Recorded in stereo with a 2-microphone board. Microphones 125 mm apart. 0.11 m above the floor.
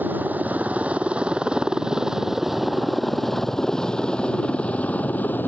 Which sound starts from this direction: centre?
A helicopter, at 0.0 s.